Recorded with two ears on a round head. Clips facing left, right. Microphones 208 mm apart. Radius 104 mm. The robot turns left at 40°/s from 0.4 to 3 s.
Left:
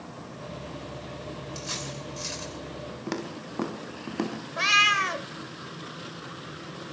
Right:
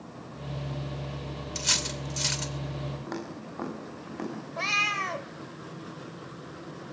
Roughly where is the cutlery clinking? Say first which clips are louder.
Right 1 dB; right.